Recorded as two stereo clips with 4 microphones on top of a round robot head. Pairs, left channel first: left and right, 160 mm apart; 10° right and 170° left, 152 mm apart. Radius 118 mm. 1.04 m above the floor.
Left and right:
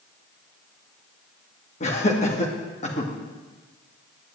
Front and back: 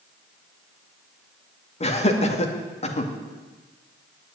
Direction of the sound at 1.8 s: 35° left.